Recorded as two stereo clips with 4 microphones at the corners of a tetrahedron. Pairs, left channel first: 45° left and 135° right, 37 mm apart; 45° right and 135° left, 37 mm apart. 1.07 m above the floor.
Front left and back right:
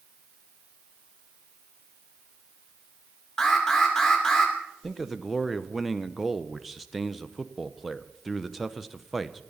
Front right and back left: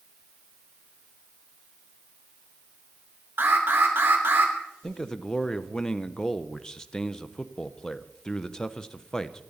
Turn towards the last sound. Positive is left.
turn(degrees=-45)